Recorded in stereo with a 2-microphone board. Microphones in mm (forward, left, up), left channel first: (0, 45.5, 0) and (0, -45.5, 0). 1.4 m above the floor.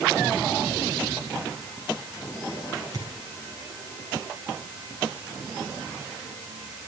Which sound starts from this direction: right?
A thud, at 2.9 s.